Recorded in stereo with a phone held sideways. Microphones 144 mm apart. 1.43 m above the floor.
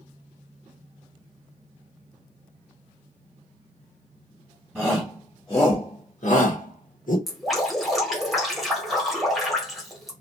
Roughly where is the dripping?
Centre.